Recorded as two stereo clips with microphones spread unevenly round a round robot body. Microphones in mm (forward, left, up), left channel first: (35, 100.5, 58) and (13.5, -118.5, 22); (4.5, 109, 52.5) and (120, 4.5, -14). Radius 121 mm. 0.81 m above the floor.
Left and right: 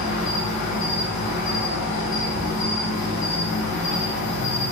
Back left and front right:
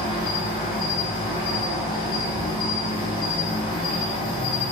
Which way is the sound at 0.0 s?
80° left.